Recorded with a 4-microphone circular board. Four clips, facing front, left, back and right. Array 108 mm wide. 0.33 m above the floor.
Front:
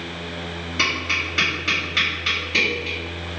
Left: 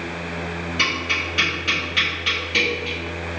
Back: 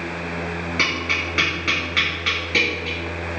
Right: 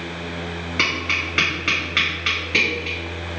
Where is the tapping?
105° right, 1.5 m.